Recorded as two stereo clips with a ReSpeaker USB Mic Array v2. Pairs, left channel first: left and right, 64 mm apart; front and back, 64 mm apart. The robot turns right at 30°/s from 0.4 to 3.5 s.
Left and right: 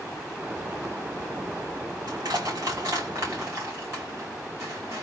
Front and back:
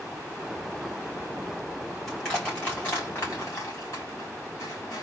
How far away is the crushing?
About 2.5 m.